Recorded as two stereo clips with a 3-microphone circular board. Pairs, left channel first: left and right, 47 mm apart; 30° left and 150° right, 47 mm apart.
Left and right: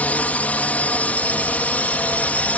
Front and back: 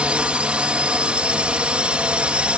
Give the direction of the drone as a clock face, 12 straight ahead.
7 o'clock.